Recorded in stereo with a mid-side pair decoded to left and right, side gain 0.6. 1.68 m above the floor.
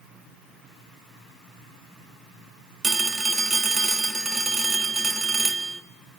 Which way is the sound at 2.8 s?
20° right.